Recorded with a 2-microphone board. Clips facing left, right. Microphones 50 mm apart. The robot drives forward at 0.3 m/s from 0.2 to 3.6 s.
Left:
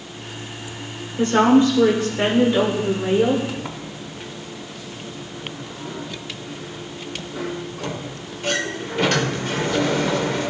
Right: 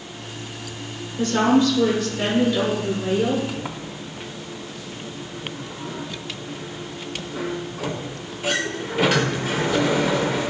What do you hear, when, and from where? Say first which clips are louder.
1.2 s a woman speaking: left 3 dB; 30° left (ahead or behind), 1.2 m; by 3.4 s 35° left (ahead or behind), 1.1 m
3.5 s a sliding door: even; 5° right (ahead or behind), 0.5 m